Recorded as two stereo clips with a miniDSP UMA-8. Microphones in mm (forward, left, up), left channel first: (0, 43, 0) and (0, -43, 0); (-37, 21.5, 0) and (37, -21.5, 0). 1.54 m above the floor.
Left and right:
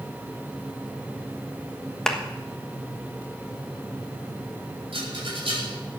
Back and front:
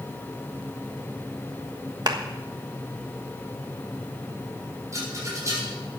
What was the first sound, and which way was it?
A clap, 5° left.